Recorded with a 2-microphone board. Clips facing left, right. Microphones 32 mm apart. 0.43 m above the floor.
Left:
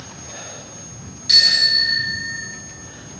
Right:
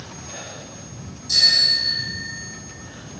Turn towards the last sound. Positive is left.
turn(degrees=70)  # may be behind; listen again after turning